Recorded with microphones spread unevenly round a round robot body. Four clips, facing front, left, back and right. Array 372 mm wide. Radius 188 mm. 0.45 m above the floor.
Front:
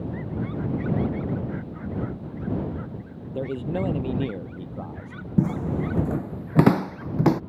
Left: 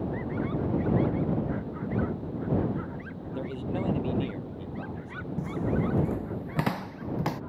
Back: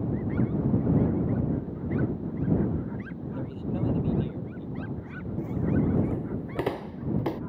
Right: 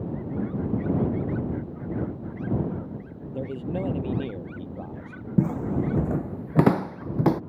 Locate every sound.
3.4 s a man speaking: 10° right; by 5.1 s 20° right
5.4 s footsteps: 40° right; by 7.4 s 30° right